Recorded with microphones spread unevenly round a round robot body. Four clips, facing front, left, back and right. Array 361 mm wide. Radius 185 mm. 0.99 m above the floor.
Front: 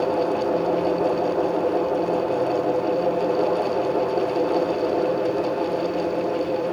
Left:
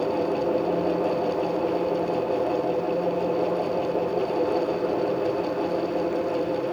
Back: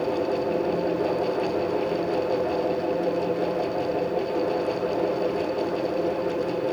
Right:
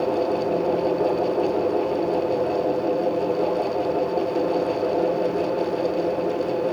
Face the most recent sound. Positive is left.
No sound to turn to.